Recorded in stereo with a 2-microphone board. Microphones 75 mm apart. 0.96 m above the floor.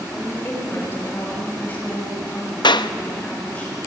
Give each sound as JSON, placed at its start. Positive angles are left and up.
{"t": 0.1, "sound": "a woman speaking", "side_deg": 30, "distance_m": 6.0}
{"t": 2.6, "sound": "a clap", "side_deg": 80, "distance_m": 0.6}